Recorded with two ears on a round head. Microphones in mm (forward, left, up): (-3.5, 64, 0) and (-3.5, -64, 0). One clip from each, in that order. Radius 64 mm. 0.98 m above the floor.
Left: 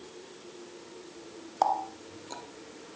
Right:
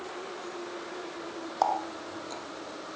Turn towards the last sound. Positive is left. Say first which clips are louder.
# left 1 dB
turn(degrees=5)  # may be behind; listen again after turning